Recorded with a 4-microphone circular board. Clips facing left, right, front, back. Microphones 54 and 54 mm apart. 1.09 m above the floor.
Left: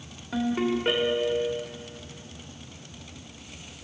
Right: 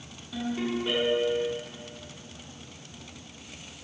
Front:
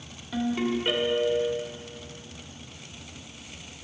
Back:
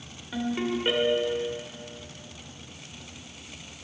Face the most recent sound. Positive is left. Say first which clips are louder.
# left 5 dB, front 2 dB
turn(degrees=105)